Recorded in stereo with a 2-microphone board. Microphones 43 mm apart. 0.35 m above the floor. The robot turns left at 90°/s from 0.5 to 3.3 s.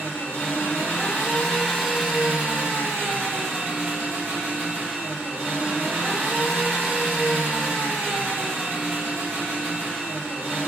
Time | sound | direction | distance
0.0 | an engine running | 120° left | 1.8 m